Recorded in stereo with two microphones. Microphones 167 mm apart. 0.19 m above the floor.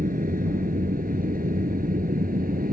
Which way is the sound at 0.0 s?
65° right (ahead or behind).